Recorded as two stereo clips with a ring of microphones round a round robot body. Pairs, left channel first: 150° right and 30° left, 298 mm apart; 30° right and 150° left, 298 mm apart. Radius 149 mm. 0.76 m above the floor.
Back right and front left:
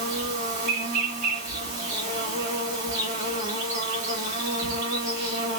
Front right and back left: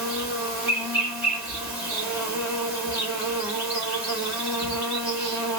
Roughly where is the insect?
Ahead left.